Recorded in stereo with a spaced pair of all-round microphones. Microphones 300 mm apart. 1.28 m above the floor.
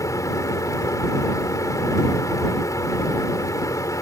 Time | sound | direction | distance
0.0 | a fan | 10° left (ahead or behind) | ?